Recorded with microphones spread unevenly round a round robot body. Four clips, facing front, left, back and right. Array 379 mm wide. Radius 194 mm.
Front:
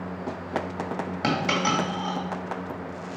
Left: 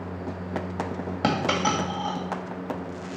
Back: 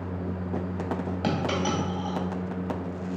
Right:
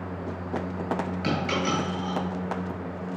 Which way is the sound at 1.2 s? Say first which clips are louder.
Left 5 dB, front 3 dB; 75° left.